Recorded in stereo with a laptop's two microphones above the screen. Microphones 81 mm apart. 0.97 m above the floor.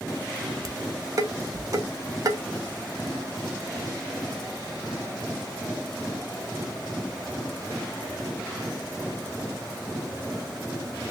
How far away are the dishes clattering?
About 0.6 m.